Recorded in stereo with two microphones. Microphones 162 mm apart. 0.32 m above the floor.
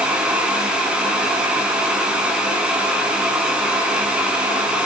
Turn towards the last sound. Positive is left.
No sound to turn to.